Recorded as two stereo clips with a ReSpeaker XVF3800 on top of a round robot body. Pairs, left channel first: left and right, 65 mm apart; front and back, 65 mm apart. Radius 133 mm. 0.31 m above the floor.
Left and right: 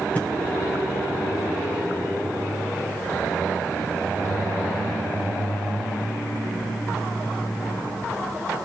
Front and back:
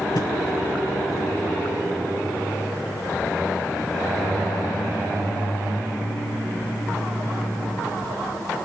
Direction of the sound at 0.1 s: 20° left.